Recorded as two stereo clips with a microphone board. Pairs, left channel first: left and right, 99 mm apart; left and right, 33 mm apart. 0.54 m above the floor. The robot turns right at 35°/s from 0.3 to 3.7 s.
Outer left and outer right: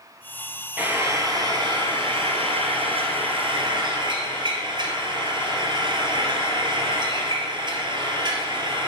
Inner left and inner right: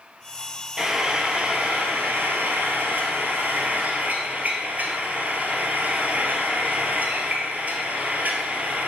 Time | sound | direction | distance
0.8 | frying | 160° right | 2.0 m